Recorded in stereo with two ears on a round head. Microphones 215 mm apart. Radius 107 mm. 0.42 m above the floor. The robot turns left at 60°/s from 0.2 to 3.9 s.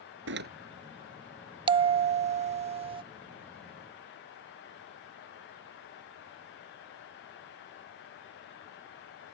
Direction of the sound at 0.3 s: 55° right (ahead or behind).